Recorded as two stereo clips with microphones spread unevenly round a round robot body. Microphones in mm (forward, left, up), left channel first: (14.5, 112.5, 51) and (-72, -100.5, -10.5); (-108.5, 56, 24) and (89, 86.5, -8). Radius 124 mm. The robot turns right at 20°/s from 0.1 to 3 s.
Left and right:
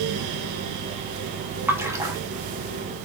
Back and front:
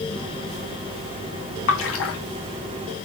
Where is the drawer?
No drawer in this recording.